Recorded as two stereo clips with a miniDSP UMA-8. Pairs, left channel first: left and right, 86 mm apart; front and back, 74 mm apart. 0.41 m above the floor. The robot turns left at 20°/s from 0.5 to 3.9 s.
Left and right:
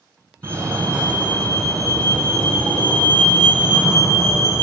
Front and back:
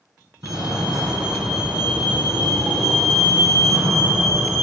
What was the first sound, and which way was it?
A fire alarm, 150° right.